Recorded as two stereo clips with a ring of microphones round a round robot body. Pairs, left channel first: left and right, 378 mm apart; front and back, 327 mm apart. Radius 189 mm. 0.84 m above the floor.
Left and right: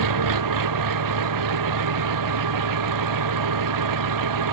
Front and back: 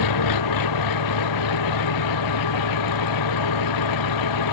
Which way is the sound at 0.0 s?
45° right.